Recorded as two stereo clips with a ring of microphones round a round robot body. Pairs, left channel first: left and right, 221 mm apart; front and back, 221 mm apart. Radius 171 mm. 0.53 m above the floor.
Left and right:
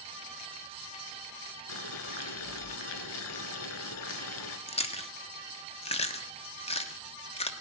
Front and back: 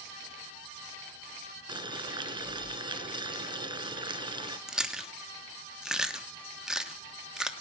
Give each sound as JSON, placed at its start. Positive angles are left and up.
{"t": 1.7, "sound": "boiling", "azimuth_deg": 110, "distance_m": 1.2}
{"t": 4.7, "sound": "chewing", "azimuth_deg": 95, "distance_m": 1.3}